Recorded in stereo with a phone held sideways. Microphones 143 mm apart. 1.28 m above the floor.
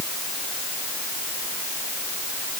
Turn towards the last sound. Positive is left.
No sound to turn to.